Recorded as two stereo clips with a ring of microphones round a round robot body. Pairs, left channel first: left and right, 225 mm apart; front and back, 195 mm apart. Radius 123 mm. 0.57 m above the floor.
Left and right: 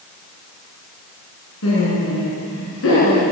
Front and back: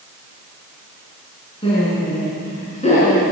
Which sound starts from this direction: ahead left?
Laughter, at 1.6 s.